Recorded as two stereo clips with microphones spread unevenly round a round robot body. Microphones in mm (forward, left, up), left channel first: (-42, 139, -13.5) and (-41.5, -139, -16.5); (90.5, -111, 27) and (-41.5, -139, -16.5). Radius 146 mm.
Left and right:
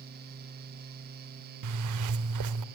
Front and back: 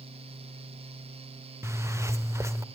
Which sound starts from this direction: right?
A zipper, at 1.6 s.